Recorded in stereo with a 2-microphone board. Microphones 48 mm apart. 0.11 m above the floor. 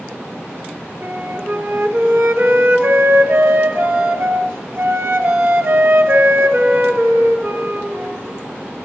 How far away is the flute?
About 0.9 m.